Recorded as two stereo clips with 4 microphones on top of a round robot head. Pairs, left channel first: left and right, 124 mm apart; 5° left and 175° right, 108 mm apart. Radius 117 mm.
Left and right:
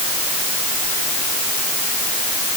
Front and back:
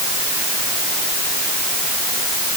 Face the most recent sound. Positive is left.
No sound to turn to.